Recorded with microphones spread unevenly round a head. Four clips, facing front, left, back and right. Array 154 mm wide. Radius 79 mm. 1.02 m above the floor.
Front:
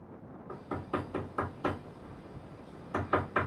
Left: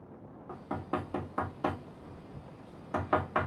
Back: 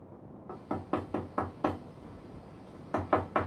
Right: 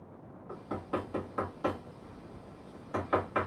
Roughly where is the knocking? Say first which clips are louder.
Even, back 2 dB; behind left.